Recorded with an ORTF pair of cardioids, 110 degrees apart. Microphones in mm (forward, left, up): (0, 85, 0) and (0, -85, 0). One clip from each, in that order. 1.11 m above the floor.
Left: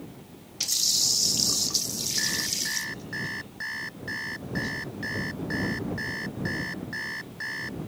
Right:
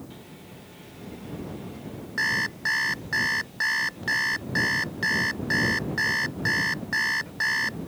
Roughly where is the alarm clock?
Ahead right.